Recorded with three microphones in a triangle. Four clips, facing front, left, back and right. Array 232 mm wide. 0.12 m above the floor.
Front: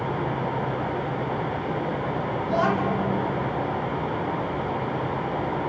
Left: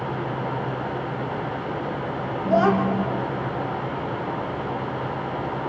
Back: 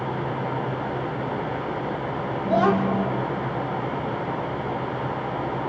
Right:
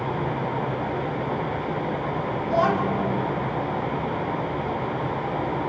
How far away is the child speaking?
About 3 m.